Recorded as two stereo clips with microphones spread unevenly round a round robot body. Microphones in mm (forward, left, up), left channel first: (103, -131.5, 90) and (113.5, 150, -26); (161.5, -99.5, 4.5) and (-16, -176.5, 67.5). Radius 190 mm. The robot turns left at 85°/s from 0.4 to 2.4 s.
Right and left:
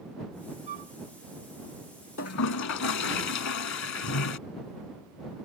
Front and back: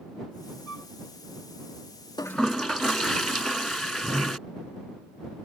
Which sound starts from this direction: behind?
A flute, at 0.7 s.